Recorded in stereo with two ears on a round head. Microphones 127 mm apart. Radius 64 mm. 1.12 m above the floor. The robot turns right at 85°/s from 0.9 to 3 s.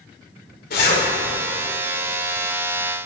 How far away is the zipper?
About 3 m.